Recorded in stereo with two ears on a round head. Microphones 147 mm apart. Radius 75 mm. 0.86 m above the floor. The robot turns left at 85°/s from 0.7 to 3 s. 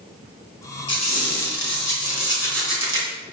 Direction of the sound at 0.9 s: 150° left.